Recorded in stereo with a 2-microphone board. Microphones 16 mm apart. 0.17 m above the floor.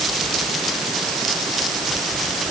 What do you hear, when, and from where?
Only background noise.